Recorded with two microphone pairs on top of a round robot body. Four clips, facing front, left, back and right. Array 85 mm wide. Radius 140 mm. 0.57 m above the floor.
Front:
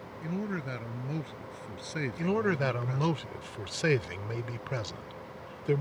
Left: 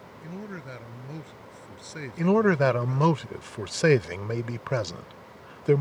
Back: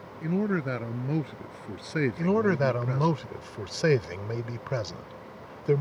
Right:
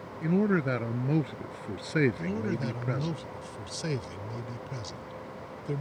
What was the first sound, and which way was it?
A man speaking, 125° right.